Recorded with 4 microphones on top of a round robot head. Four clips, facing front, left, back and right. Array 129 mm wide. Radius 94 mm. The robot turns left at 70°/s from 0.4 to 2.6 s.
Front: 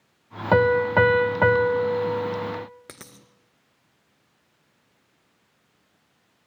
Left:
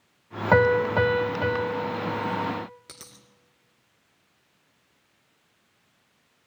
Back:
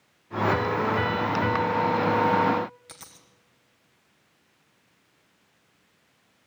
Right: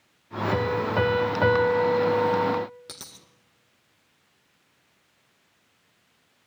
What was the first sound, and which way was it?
A piano, 45° left.